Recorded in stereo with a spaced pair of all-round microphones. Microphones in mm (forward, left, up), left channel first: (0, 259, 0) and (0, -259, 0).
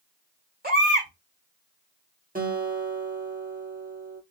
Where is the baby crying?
15° right (ahead or behind), 2.5 m.